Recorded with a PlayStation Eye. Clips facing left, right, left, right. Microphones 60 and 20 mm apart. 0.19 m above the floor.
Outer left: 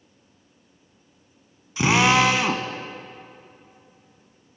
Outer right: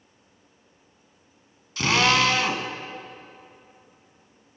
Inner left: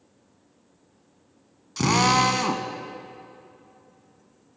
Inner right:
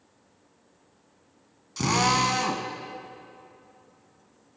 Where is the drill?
15° left (ahead or behind), 0.9 m.